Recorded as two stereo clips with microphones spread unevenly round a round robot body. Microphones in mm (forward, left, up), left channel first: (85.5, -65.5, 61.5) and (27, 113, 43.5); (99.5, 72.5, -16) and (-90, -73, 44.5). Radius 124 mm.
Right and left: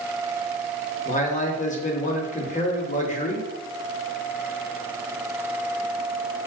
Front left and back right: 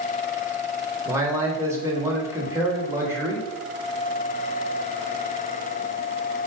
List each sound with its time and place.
1.1 s a man speaking: 50° right, 0.9 m